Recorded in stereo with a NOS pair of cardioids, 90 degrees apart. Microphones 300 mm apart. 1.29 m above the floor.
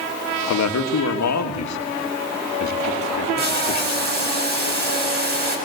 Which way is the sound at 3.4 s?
35° right.